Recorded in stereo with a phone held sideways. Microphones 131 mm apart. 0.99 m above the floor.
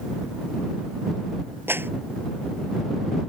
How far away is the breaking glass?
No breaking glass in this recording.